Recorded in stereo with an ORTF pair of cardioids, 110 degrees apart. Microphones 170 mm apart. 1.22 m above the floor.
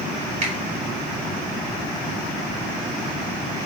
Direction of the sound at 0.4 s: 45° right.